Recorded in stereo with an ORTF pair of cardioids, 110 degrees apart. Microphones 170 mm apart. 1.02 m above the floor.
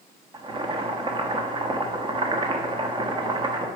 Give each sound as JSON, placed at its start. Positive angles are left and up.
{"t": 0.3, "sound": "boiling", "azimuth_deg": -30, "distance_m": 1.1}